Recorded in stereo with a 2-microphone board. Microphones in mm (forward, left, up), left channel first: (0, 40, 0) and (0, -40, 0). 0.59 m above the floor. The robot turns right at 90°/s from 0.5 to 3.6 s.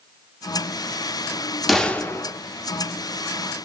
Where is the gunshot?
Straight ahead, 0.7 m; by 2.3 s 55° left, 0.7 m.